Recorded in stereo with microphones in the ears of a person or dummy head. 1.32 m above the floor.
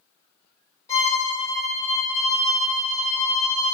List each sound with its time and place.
0.9 s a violin: 20° left (ahead or behind), 2 m